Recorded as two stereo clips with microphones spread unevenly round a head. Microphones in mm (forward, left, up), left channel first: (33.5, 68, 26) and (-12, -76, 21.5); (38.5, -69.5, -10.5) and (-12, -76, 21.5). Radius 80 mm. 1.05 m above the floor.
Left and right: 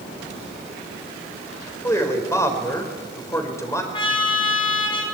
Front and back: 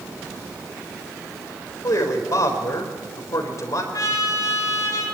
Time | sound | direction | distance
1.8 | a man speaking | straight ahead | 4 m
3.9 | a trumpet | 15° left | 4.5 m